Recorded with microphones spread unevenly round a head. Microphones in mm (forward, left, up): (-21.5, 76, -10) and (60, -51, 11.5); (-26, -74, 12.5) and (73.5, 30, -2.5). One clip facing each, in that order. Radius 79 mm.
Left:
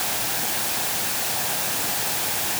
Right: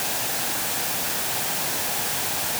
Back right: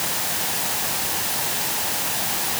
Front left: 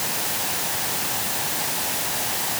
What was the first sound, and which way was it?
Only background noise.